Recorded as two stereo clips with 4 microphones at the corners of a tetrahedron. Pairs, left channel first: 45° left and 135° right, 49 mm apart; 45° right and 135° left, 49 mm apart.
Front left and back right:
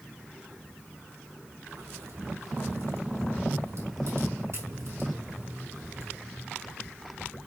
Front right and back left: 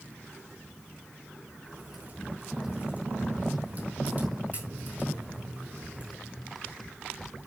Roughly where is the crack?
Behind.